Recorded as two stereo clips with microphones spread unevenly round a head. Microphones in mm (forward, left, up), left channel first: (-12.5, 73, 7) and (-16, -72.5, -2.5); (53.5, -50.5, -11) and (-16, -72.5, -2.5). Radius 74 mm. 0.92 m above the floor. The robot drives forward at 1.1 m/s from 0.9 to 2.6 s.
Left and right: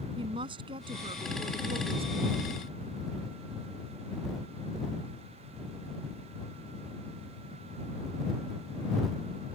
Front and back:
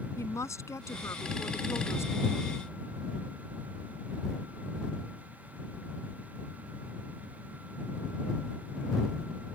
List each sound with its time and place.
0.2 s a woman speaking: 30° right; by 2.5 s 40° right